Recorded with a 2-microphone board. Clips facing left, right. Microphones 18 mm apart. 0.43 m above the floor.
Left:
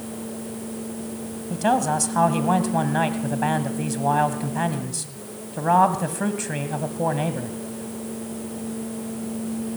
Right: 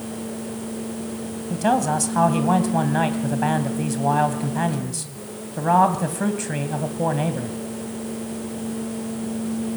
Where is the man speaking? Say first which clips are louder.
Right 1 dB; 5° left (ahead or behind), 2 m.